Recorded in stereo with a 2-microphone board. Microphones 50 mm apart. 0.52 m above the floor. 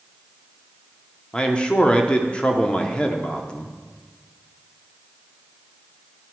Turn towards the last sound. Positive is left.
turn(degrees=20)  # may be behind; listen again after turning